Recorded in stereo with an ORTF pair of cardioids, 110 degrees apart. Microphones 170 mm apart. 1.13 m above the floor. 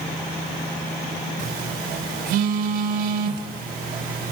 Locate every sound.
1.4 s a phone buzzing: 60° right, 3.5 m